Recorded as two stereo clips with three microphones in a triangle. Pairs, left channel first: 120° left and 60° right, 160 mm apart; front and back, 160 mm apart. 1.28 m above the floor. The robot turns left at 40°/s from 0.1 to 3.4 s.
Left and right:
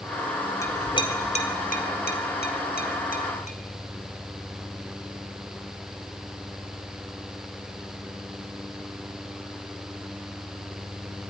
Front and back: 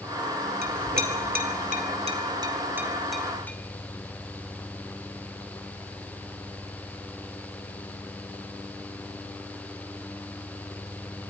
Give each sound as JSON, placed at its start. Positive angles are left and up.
{"t": 0.6, "sound": "a clink", "azimuth_deg": -170, "distance_m": 2.0}